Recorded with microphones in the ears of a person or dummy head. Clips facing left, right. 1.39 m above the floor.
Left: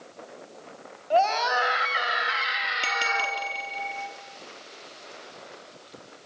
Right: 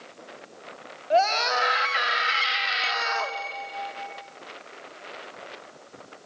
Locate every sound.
1.1 s a scream: 30° right (ahead or behind), 4 m; by 3.4 s 50° right (ahead or behind), 4 m
2.8 s a bell: 35° left (ahead or behind), 4 m